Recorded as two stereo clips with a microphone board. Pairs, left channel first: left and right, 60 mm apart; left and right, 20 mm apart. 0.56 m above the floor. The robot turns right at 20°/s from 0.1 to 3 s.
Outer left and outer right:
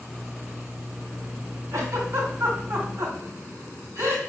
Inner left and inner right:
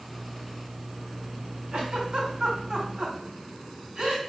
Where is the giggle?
60° right (ahead or behind), 1.5 m; by 4.2 s 65° right (ahead or behind), 1.5 m.